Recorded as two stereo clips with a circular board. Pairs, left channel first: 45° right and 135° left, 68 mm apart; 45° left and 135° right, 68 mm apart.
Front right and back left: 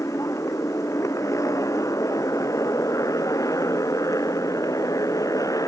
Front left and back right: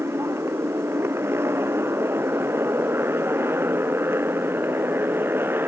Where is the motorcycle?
85° right; by 5.7 s 80° right.